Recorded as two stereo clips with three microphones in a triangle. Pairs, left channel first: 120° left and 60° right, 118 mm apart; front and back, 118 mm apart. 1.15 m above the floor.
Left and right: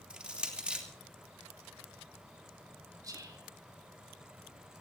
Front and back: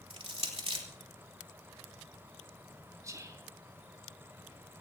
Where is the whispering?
115° right, 3.5 m.